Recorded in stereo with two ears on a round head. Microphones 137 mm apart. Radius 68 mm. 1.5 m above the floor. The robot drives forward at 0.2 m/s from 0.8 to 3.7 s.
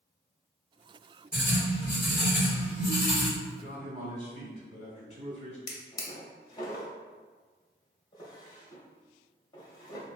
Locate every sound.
1.3 s writing: 20° left (ahead or behind), 1.8 m; by 3.3 s 15° left (ahead or behind), 2 m
3.5 s a man speaking: 50° left (ahead or behind), 1.8 m
5.7 s a drawer: 25° left (ahead or behind), 0.7 m